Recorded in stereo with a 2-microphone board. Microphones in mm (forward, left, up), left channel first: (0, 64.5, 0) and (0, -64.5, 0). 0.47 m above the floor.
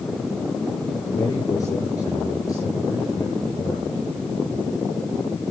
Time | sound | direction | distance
1.1 | a man speaking | 25° left (ahead or behind) | 7 m